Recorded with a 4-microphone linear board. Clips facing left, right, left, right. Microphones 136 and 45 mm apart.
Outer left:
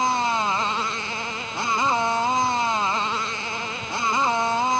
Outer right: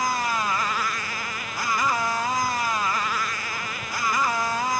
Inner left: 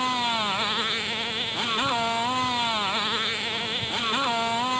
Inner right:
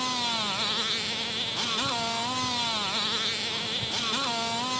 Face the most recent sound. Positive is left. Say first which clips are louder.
# outer left 3 dB, inner left 5 dB
turn(degrees=25)  # may be behind; listen again after turning